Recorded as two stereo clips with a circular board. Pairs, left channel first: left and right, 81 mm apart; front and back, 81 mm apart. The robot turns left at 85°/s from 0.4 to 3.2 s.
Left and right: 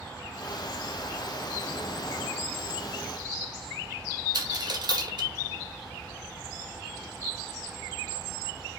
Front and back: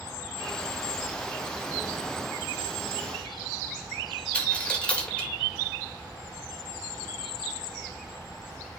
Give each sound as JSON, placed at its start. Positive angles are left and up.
{"t": 4.3, "sound": "a dropped coin", "azimuth_deg": -75, "distance_m": 2.0}